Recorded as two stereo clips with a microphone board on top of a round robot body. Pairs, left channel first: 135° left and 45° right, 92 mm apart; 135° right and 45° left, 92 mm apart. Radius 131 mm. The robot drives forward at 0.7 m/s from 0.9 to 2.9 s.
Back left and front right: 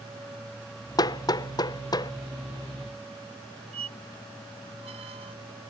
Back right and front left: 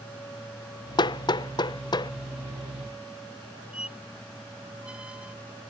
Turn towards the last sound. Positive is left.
turn(degrees=-35)